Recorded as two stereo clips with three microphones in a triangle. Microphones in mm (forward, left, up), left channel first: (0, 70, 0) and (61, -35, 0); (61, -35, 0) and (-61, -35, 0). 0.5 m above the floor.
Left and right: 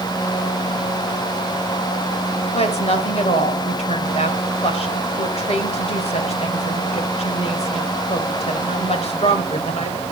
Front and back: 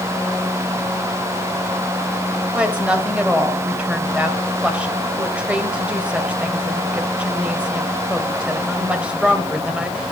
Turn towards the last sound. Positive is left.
turn(degrees=100)